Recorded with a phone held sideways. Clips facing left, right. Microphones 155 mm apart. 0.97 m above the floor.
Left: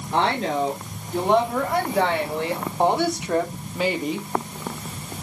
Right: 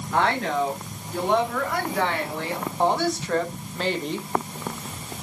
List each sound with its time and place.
0.1 s a woman speaking: 25° left (ahead or behind), 3.5 m; by 4.3 s centre (ahead or behind), 1.0 m